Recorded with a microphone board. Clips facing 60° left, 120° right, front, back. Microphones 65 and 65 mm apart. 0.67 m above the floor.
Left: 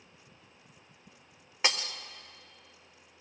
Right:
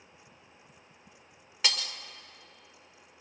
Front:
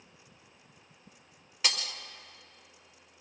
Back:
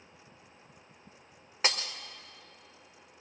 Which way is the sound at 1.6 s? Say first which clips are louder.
Left 2 dB, back 2 dB; 125° left.